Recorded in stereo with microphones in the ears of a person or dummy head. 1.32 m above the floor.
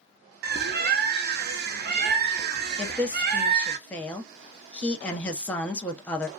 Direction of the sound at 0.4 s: 50° right (ahead or behind).